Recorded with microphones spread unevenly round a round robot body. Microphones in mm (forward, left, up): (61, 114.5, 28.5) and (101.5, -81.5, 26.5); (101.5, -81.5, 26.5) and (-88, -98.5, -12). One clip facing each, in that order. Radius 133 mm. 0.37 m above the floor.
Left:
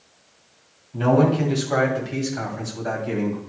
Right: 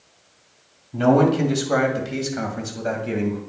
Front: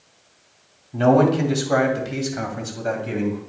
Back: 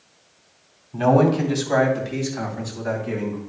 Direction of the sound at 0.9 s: 65° right.